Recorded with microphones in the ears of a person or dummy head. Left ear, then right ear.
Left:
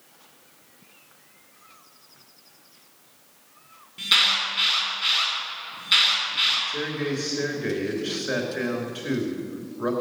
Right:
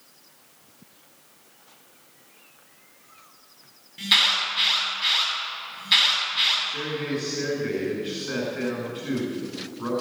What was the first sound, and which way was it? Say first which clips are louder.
An alarm: even; 15° right (ahead or behind).